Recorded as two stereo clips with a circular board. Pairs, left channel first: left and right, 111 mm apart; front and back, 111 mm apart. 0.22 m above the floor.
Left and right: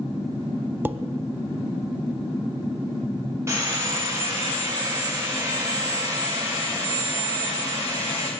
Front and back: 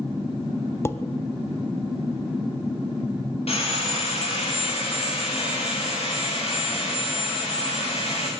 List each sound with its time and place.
0.8 s dishes clattering: 35° right, 0.7 m
3.5 s sawing: 25° right, 7.5 m